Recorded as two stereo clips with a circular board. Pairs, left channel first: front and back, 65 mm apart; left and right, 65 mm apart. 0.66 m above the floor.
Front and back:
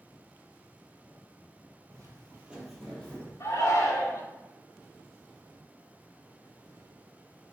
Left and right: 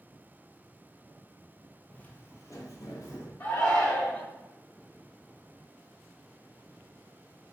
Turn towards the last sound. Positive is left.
turn(degrees=45)